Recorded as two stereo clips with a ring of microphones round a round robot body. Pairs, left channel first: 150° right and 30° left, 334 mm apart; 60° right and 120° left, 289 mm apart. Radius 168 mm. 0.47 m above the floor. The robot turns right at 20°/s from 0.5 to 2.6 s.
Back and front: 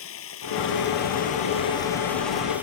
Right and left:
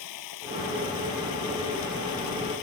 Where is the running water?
95° right; by 2.6 s 55° right.